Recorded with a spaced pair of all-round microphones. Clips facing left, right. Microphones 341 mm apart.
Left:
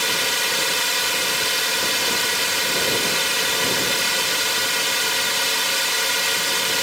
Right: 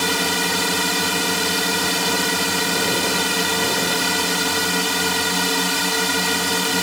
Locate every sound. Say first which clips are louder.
0.0 s a drone: right 6 dB; 65° right (ahead or behind)